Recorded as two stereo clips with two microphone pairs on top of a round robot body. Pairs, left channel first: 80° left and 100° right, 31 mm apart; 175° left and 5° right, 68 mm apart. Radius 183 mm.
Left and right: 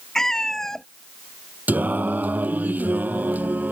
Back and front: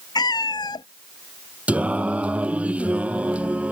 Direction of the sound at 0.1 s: 150° left.